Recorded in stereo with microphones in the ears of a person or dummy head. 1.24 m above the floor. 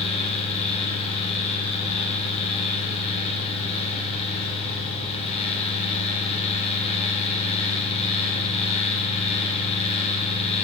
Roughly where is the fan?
Left.